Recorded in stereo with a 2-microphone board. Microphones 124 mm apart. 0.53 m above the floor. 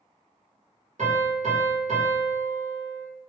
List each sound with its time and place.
1.0 s a piano: 75° right (ahead or behind), 1.3 m